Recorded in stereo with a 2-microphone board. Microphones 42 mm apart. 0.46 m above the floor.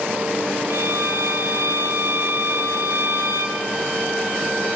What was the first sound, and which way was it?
A violin, 80° right.